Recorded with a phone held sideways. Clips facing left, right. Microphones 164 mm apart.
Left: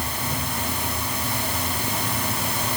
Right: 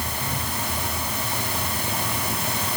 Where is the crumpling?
No crumpling in this recording.